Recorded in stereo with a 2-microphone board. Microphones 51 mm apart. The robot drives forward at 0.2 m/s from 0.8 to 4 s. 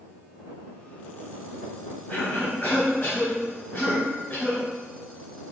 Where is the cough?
50° left (ahead or behind), 1.9 m.